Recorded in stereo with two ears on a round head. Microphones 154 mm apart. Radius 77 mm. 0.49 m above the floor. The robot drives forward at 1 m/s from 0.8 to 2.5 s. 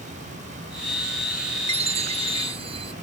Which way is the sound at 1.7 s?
40° right (ahead or behind).